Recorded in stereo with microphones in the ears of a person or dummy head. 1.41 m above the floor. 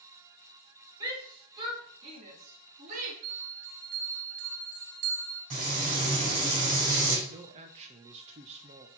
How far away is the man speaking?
About 0.9 m.